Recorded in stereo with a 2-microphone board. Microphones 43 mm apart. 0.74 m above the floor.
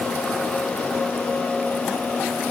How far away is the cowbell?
I don't hear a cowbell.